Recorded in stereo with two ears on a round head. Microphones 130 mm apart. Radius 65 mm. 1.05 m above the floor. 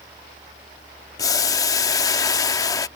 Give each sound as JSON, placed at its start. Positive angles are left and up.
{"t": 1.2, "sound": "boiling", "side_deg": 25}